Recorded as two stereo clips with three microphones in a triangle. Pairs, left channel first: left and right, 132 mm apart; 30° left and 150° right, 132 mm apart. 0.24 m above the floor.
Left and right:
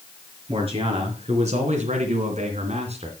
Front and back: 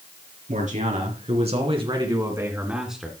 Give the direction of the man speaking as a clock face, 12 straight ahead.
5 o'clock.